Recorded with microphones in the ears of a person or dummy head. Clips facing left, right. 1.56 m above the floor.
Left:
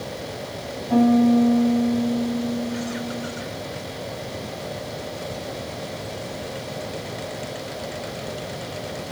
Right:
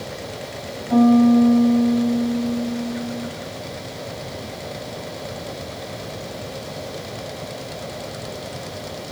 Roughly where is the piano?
Centre.